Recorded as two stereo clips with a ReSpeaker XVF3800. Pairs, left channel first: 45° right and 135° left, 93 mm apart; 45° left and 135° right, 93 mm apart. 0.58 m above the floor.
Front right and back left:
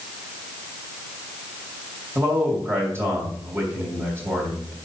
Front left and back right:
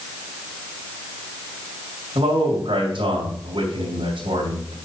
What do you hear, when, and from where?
2.1 s a man speaking: 160° right, 3 m